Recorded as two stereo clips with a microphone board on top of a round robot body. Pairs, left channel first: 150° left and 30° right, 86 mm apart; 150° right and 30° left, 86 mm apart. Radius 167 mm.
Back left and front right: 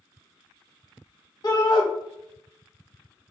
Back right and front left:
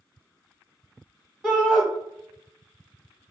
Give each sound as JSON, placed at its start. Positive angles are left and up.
{"t": 1.4, "sound": "a shout", "azimuth_deg": 115, "distance_m": 1.3}